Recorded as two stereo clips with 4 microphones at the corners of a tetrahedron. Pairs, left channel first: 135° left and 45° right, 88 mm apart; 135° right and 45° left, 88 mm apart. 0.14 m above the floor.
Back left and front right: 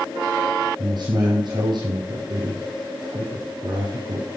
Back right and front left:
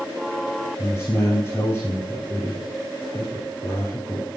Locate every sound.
0.8 s a man speaking: 75° right, 3.5 m